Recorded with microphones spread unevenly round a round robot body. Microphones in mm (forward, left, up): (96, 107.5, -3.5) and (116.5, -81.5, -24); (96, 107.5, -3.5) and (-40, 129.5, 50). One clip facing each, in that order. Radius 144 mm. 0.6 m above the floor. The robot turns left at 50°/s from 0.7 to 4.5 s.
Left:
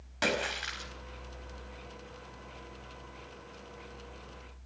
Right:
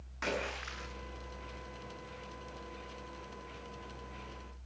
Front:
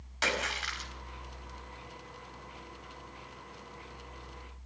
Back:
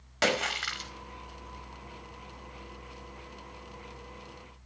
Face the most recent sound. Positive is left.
turn(degrees=-40)